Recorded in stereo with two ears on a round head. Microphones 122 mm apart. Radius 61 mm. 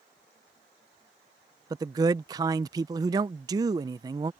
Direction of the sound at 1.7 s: 30° right (ahead or behind).